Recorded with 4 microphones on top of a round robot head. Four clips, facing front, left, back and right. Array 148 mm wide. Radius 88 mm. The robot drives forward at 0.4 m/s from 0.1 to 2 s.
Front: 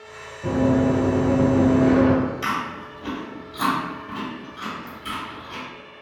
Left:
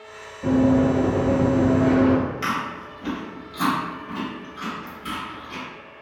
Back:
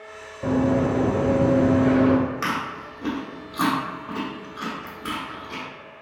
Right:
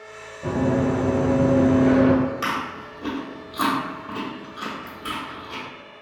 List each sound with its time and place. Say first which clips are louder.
0.4 s running footsteps: left 4 dB, front 1 dB; 165° left, 1.6 m; by 2.2 s 30° right, 0.7 m
2.4 s chewing: even, front 1 dB; 150° right, 1.1 m